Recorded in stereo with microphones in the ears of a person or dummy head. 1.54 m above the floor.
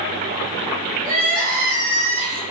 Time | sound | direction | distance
1.0 | crying | 45° right (ahead or behind) | 1.1 m